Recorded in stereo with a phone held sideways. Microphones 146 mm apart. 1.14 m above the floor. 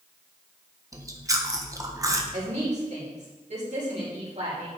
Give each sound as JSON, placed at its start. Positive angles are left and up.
{"t": 0.9, "sound": "chewing", "side_deg": -25, "distance_m": 1.1}
{"t": 2.3, "sound": "a woman speaking", "side_deg": -50, "distance_m": 4.5}